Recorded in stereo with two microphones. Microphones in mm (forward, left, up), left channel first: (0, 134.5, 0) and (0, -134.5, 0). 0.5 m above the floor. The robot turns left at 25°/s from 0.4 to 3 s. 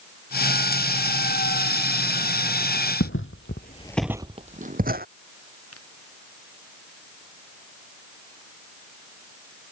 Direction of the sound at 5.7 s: 60° left (ahead or behind).